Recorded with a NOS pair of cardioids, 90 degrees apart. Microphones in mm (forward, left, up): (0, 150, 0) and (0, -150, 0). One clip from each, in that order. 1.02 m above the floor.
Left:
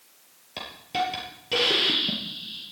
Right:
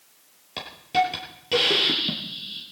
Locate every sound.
0.6 s a hiss: 20° right, 6.5 m